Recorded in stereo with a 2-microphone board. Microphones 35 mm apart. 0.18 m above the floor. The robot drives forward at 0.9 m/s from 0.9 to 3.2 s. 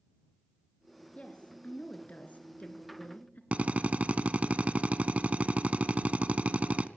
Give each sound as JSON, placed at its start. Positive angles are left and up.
{"t": 1.1, "sound": "a woman speaking", "side_deg": 40, "distance_m": 3.5}
{"t": 3.5, "sound": "a drill", "side_deg": -45, "distance_m": 0.7}